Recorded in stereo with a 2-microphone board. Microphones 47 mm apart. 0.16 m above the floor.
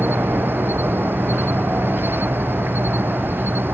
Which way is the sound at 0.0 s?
50° right (ahead or behind).